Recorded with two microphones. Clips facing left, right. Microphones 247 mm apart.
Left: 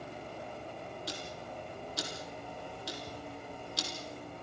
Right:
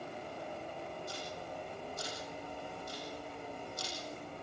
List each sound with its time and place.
1.1 s ticking: 80° left, 3.5 m